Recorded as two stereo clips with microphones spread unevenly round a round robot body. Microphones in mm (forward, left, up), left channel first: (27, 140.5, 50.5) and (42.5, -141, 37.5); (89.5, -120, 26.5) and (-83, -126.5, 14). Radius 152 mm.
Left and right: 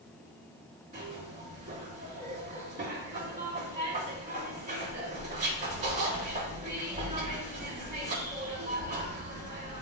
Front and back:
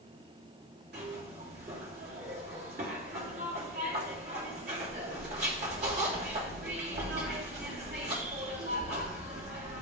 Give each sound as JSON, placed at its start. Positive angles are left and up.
{"t": 0.9, "sound": "a zipper", "azimuth_deg": -155, "distance_m": 3.0}